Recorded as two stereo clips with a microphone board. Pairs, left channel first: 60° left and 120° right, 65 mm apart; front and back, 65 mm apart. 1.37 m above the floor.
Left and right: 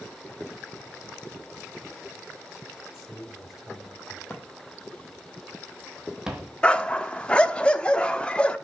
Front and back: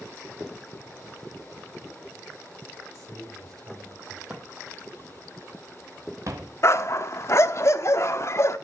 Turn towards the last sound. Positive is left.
turn(degrees=-5)